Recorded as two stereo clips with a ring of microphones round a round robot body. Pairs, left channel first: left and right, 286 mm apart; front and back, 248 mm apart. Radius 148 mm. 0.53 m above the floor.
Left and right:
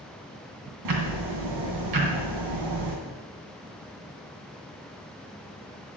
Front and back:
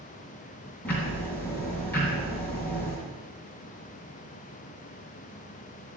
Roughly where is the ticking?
Right.